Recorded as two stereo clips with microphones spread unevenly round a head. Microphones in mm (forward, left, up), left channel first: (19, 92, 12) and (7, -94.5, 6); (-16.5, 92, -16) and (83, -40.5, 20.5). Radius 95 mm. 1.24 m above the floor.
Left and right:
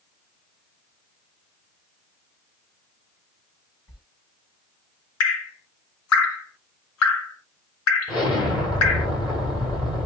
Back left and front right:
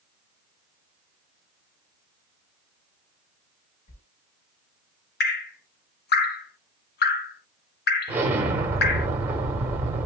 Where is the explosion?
20° left, 1.8 m.